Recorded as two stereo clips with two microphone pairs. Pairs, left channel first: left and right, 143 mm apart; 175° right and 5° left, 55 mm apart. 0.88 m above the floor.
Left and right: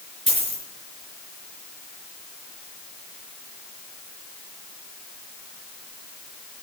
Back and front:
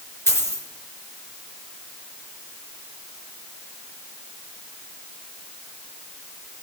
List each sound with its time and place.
0.3 s a dropped coin: 130° right, 4.5 m